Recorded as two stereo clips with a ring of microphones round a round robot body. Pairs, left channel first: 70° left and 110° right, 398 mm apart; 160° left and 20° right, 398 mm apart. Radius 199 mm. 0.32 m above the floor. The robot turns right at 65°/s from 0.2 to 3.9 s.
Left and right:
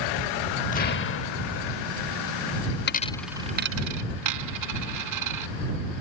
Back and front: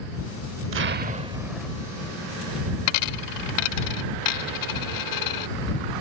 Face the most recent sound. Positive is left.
turn(degrees=-160)